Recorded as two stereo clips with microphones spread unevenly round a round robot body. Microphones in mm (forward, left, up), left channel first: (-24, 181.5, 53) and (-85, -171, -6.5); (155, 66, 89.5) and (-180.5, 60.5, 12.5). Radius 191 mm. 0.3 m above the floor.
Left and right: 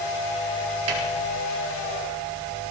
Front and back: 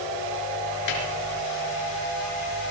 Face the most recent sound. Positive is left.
turn(degrees=-45)